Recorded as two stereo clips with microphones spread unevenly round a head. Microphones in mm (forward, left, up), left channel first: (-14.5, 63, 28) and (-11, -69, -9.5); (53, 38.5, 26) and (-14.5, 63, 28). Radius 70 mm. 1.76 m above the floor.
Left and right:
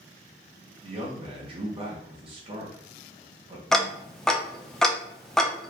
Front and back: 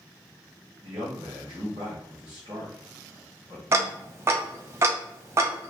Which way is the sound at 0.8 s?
140° right.